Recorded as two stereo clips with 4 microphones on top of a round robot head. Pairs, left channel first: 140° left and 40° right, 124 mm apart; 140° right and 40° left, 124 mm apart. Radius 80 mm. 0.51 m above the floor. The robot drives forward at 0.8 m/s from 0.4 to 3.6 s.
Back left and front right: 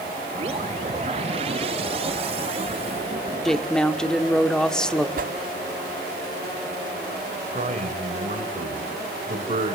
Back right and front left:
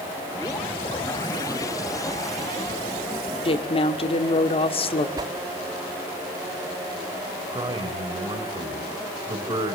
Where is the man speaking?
15° right, 2.5 m.